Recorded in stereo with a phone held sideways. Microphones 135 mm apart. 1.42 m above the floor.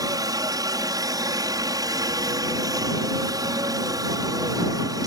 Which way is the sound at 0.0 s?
30° right (ahead or behind).